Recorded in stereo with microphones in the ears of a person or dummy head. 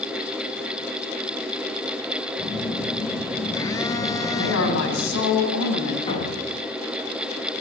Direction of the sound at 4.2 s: 70° left (ahead or behind).